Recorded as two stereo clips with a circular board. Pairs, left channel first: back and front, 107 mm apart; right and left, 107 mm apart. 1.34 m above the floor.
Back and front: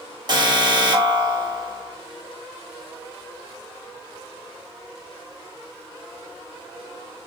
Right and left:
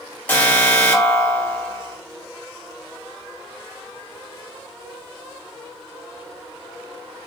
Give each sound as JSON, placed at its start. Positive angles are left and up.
{"t": 0.3, "sound": "an alarm", "azimuth_deg": -20, "distance_m": 1.1}